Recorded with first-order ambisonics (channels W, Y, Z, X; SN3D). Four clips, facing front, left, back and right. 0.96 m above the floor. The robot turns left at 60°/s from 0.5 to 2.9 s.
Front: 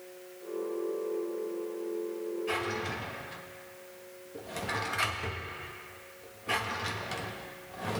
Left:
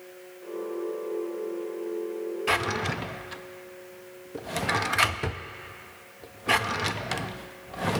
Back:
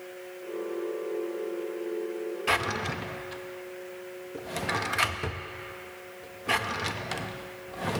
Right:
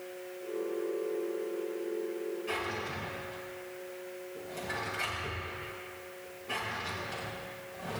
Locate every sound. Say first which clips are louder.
2.5 s a drawer: left 12 dB, back 8 dB; 135° left, 0.5 m; by 8.0 s 110° left, 0.5 m